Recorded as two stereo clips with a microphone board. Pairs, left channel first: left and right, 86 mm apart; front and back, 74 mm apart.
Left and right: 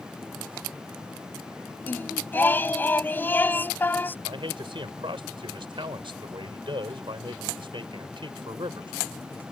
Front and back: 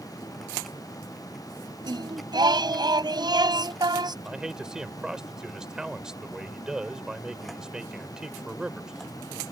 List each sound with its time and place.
1.8 s singing: 160° left
4.2 s a man speaking: 100° right